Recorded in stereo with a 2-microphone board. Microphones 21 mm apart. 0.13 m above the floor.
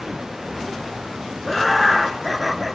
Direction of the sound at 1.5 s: 5° left (ahead or behind).